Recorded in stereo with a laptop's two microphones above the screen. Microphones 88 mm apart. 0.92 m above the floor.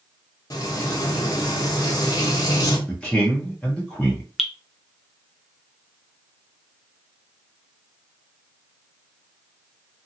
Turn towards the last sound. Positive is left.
turn(degrees=0)  # may be behind; listen again after turning